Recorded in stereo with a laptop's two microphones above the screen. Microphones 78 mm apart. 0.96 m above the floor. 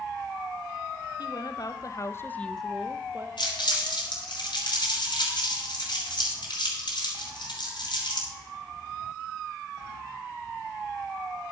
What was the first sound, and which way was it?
A woman speaking, 60° left (ahead or behind).